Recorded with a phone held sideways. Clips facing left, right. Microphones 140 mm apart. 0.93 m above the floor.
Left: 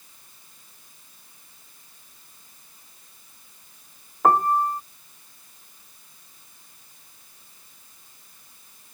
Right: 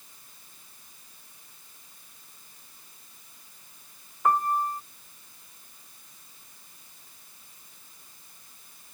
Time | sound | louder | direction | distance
4.2 | a piano | left 5 dB | 75° left (ahead or behind) | ?